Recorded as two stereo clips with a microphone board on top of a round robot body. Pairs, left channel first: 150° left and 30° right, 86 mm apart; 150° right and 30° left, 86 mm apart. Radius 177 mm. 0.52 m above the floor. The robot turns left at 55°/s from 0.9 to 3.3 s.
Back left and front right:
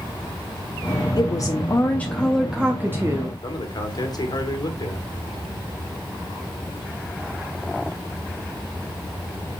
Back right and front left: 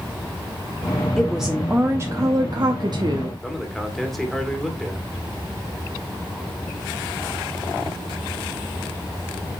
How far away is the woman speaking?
About 1.1 m.